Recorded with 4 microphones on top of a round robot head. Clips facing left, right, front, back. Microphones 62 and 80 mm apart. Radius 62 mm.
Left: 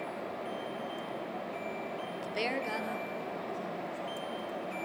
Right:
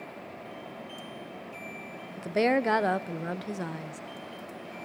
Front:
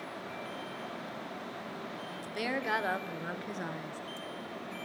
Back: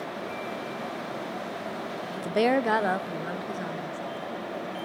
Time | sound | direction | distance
2.2 | a woman speaking | 160° right | 0.8 m